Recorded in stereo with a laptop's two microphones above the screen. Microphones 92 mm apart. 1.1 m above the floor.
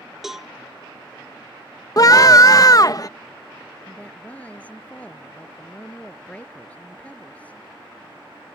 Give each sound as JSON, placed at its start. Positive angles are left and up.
{"t": 0.2, "sound": "a cowbell", "side_deg": -5}
{"t": 2.0, "sound": "a scream", "side_deg": 40}
{"t": 3.9, "sound": "a woman speaking", "side_deg": 15}